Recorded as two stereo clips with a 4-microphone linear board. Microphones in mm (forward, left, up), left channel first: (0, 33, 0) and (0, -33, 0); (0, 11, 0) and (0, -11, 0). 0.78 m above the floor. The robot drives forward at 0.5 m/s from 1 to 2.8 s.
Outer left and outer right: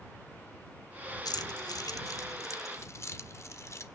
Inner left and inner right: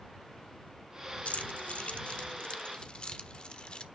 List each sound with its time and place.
1.2 s keys jangling: 85° left, 0.9 m; by 3.8 s 45° left (ahead or behind), 1.2 m